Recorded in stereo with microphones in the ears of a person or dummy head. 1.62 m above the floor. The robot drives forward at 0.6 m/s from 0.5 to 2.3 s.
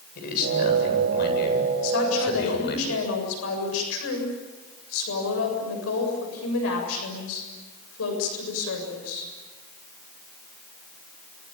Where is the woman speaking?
85° left, 7.5 m; by 9.3 s 90° left, 7.5 m.